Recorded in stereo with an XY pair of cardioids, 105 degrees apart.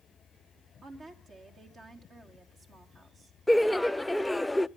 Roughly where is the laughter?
Ahead.